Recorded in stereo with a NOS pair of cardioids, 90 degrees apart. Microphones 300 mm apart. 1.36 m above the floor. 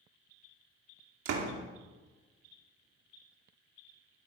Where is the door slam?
70° right, 2.5 m.